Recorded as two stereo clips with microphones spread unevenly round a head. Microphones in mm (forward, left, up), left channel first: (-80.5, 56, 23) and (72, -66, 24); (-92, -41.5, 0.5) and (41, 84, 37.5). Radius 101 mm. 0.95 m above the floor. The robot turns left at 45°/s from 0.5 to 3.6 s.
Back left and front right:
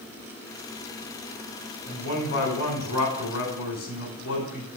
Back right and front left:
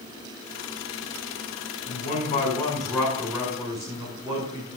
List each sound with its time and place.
1.9 s a man speaking: 165° right, 4 m; by 4.7 s 120° left, 4 m